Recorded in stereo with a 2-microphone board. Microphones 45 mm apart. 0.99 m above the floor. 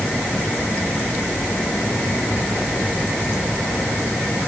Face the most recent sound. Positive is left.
No sound to turn to.